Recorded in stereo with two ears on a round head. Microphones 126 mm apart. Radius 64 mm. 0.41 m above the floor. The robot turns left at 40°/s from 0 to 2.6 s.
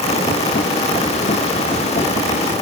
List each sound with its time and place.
Only background noise.